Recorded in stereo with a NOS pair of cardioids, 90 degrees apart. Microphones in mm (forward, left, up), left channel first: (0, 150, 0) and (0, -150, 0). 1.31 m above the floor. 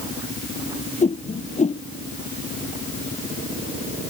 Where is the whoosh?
25° left.